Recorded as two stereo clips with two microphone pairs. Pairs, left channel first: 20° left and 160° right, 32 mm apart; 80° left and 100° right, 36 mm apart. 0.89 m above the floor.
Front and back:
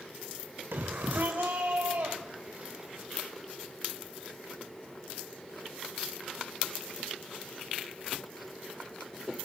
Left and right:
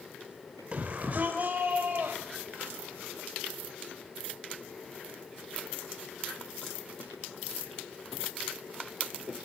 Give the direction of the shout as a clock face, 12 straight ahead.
5 o'clock.